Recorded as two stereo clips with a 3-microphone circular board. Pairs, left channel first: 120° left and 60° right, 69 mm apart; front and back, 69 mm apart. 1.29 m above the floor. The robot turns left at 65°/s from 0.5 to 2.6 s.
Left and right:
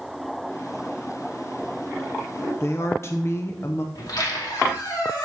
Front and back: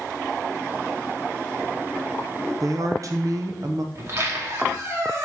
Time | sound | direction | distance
2.6 | a woman speaking | 160° left | 0.6 m
4.0 | a squeak | 135° left | 2.5 m